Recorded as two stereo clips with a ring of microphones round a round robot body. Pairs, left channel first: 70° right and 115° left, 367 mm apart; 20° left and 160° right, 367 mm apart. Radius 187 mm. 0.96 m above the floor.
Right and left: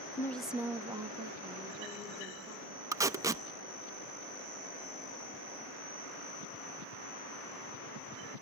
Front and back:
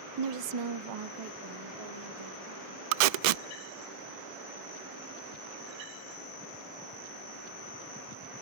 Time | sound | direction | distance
0.2 | a woman speaking | 145° right | 0.6 m
2.9 | tape being pulled | 165° right | 0.6 m